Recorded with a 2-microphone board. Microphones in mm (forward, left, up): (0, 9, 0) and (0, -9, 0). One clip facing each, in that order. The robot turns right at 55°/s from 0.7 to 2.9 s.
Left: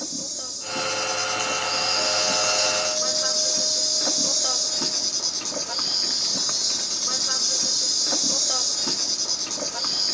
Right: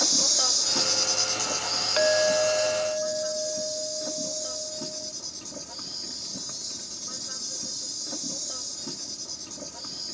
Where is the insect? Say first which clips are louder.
Right 9 dB; 55° right; by 10.2 s 70° left.